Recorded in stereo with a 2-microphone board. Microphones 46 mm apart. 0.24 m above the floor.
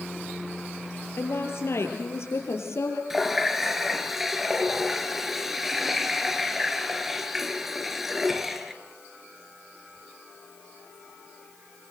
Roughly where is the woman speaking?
Left.